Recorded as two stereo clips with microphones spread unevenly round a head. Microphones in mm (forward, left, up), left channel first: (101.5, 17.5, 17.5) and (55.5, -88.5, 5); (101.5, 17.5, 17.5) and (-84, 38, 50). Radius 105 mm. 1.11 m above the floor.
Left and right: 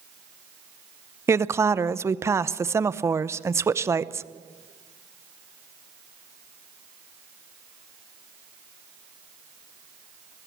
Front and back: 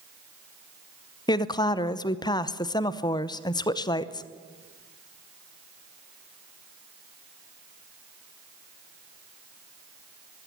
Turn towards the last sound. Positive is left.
turn(degrees=-60)